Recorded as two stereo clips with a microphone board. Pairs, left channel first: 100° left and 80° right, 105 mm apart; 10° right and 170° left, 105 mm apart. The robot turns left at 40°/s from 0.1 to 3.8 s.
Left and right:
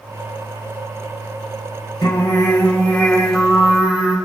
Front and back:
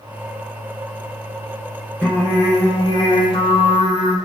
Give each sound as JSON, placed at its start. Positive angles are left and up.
{"t": 2.0, "sound": "singing", "azimuth_deg": 65, "distance_m": 3.0}